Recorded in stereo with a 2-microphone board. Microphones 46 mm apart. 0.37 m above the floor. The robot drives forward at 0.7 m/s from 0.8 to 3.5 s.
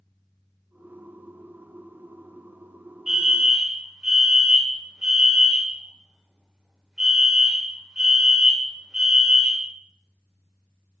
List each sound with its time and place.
3.1 s a fire alarm: 15° right (ahead or behind), 1.9 m